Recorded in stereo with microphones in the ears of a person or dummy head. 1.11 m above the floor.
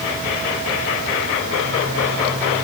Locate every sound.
Only background noise.